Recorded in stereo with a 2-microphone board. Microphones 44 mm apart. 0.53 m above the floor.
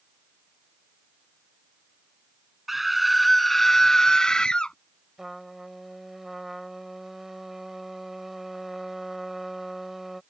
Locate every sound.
2.7 s a scream: 5° right (ahead or behind); by 4.8 s 20° left (ahead or behind)
5.2 s a trumpet: 5° right (ahead or behind)